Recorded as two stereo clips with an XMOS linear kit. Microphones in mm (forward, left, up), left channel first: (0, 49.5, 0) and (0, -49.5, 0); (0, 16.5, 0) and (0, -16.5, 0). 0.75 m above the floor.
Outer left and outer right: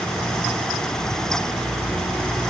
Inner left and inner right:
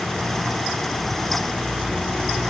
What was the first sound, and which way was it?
Only background noise.